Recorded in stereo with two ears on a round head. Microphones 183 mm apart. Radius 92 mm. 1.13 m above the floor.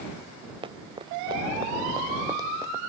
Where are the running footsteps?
25° right (ahead or behind); by 2.8 s 15° right (ahead or behind).